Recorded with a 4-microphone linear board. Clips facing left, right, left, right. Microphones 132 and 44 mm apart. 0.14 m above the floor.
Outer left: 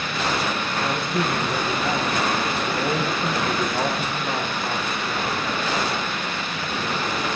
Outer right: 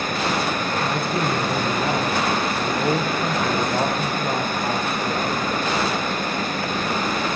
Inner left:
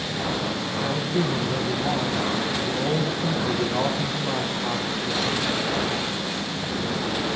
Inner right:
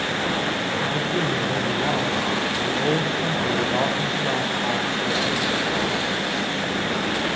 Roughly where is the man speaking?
Right.